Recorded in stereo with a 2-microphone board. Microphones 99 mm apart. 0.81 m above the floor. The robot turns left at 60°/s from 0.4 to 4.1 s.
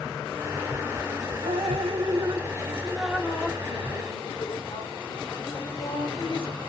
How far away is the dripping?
About 0.8 m.